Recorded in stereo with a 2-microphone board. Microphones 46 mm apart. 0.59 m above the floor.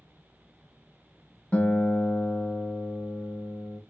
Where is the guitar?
30° left (ahead or behind), 1.1 m.